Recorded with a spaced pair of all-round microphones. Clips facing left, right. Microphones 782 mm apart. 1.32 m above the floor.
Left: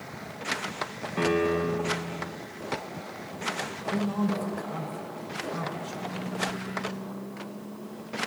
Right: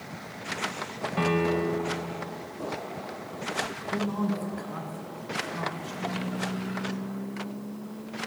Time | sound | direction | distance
1.2 | a piano | 25° right (ahead or behind) | 1.0 m
3.9 | a man speaking | 25° left (ahead or behind) | 1.6 m